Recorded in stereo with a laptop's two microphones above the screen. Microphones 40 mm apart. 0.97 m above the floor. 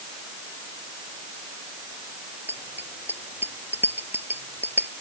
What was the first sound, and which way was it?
A bicycle bell, 65° right (ahead or behind).